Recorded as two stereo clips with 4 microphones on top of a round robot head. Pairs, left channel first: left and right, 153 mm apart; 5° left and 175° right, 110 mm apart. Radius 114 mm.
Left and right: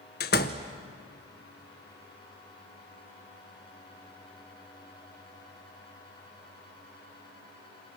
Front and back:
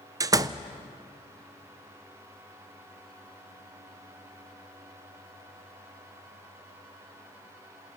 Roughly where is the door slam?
Behind left.